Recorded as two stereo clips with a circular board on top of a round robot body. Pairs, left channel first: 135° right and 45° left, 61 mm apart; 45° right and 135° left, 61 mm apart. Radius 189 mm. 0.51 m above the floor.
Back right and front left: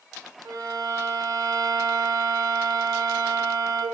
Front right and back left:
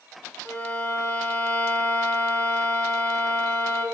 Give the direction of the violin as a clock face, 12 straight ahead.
11 o'clock.